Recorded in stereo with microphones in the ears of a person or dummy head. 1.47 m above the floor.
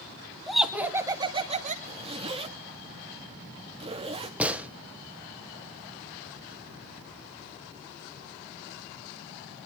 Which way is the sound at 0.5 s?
5° left (ahead or behind).